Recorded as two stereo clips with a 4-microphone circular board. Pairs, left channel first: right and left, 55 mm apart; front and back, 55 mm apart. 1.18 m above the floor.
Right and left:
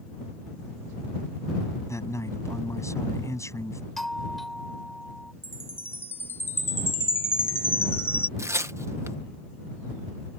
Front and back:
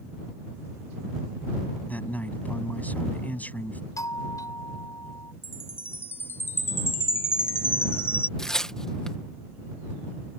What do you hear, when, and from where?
1.9 s a man speaking: 65° right
4.0 s a doorbell: 5° right
5.4 s a chime: 45° right
8.4 s tearing paper: 75° left